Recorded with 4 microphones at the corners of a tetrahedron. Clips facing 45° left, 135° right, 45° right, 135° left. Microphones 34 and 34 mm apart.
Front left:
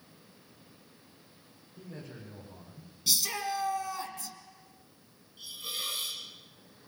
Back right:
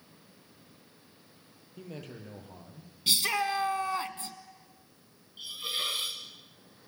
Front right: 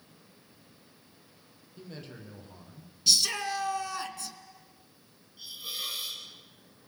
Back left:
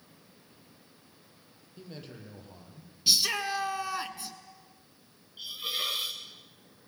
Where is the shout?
165° right, 1.5 m.